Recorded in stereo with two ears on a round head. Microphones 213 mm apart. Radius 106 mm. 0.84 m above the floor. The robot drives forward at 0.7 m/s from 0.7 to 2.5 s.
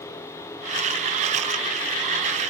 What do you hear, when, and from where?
Only background noise.